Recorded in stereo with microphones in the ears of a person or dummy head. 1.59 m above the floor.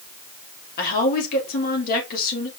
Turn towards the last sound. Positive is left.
turn(degrees=45)  # may be behind; listen again after turning